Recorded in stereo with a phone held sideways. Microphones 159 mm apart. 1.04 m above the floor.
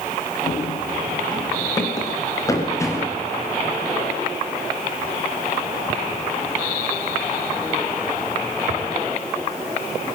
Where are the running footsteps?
30° left (ahead or behind), 9 m; by 3.2 s 20° left (ahead or behind), 9 m.